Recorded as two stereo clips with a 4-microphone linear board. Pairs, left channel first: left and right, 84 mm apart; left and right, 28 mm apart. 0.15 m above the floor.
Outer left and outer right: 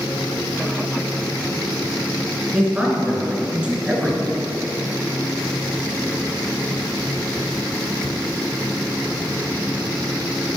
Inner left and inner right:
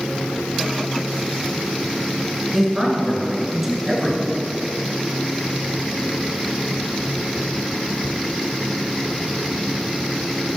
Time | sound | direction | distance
2.5 | a man speaking | 10° right (ahead or behind) | 2 m